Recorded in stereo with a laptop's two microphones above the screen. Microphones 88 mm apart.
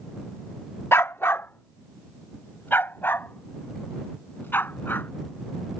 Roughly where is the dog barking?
Left.